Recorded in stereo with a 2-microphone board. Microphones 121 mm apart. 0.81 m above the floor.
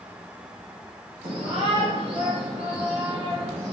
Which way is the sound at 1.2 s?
65° right (ahead or behind).